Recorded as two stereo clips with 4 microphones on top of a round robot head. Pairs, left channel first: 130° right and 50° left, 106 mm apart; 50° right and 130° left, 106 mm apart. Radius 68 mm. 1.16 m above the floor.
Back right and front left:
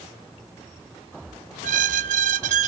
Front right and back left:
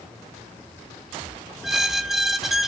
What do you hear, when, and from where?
1.6 s a squeak: 40° left, 0.5 m